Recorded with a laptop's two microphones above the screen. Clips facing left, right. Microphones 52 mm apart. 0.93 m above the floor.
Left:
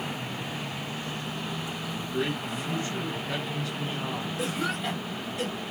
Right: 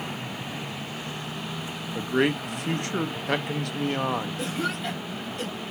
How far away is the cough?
About 1.4 m.